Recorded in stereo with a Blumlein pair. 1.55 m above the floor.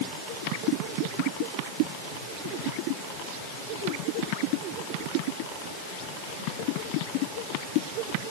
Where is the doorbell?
No doorbell in this recording.